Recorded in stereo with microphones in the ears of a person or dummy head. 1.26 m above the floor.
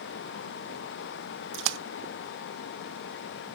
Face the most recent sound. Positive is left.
turn(degrees=-65)  # may be behind; listen again after turning